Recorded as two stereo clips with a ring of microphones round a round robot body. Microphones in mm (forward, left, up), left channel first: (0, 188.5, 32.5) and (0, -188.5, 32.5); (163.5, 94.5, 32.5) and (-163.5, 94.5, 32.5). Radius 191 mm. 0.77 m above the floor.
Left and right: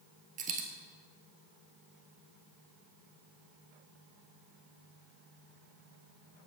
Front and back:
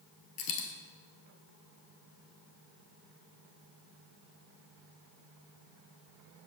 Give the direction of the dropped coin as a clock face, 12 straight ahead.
1 o'clock.